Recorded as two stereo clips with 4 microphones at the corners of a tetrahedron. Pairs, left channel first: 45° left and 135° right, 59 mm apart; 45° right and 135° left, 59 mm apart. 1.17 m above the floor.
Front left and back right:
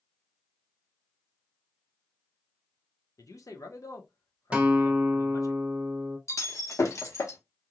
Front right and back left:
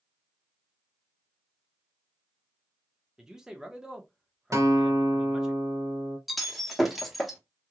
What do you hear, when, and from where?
3.2 s a man speaking: 55° left, 0.9 m
4.5 s a guitar: 155° left, 0.8 m
6.3 s breaking glass: 45° left, 0.9 m